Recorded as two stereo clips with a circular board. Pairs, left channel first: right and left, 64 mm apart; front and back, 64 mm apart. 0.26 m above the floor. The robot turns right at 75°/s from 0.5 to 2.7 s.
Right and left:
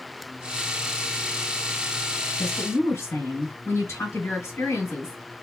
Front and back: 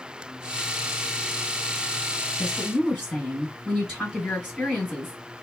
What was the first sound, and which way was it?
A woman speaking, 115° right.